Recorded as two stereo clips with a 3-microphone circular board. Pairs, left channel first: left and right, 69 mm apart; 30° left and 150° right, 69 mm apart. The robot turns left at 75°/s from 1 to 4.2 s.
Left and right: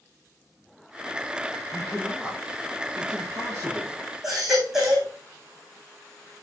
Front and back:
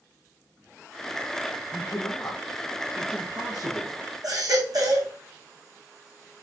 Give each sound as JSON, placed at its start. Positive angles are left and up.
{"t": 1.7, "sound": "a man speaking", "azimuth_deg": 10, "distance_m": 4.0}
{"t": 4.2, "sound": "a baby crying", "azimuth_deg": -175, "distance_m": 5.5}